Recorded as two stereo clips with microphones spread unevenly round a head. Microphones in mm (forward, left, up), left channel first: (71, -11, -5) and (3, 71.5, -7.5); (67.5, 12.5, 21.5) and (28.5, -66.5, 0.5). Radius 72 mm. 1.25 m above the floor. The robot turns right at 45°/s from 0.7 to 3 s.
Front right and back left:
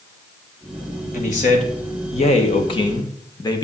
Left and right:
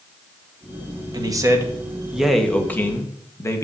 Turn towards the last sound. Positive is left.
turn(degrees=0)